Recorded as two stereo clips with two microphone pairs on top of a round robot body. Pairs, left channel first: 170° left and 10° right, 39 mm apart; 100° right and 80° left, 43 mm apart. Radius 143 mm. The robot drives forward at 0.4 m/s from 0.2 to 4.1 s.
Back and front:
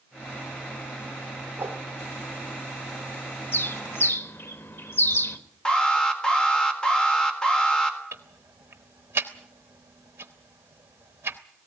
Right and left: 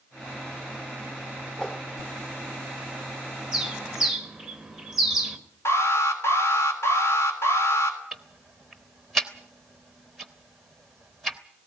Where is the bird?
155° left, 1.3 m; by 5.4 s 160° left, 1.6 m.